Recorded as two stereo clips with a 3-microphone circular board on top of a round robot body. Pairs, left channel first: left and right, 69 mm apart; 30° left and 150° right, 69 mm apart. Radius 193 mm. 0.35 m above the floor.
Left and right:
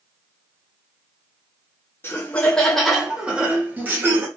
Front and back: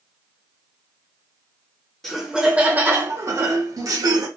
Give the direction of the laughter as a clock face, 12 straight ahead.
8 o'clock.